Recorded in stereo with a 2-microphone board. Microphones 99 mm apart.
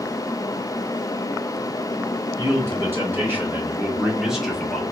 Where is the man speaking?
25° right (ahead or behind), 2 m; by 4.8 s 10° left (ahead or behind), 1.0 m.